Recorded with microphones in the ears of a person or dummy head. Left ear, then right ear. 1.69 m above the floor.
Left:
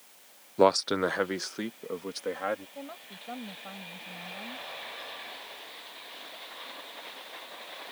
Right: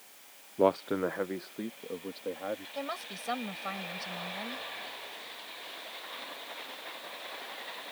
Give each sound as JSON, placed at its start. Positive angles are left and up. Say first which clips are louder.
{"t": 0.6, "sound": "a man speaking", "louder": "left 4 dB", "side_deg": 55}
{"t": 2.8, "sound": "a woman speaking", "louder": "right 6 dB", "side_deg": -60}